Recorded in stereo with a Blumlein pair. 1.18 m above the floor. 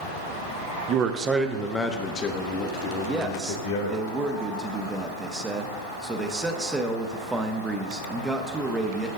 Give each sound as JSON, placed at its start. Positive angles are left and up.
{"t": 0.9, "sound": "a man speaking", "azimuth_deg": -35, "distance_m": 0.7}
{"t": 3.0, "sound": "a man speaking", "azimuth_deg": -10, "distance_m": 0.8}